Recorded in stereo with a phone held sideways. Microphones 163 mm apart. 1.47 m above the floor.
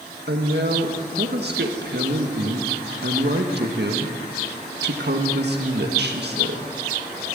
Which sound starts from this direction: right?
A woman speaking, at 0.3 s.